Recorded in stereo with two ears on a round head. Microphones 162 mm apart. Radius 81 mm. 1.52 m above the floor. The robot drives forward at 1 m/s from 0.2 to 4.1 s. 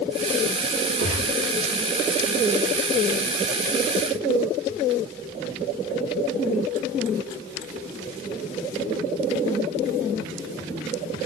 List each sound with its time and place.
1.0 s a gunshot: 85° right, 6 m; by 1.5 s 90° right, 6 m